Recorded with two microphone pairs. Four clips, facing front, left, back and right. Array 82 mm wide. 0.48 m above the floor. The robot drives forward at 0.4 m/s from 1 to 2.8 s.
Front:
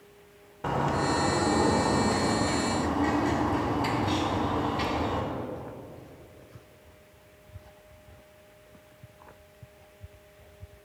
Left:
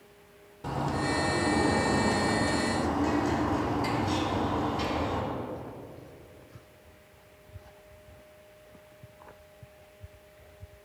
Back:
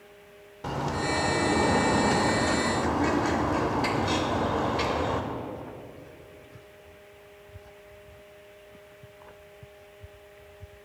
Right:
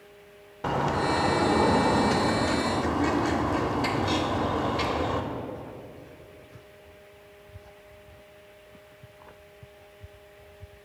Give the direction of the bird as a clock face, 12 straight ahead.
2 o'clock.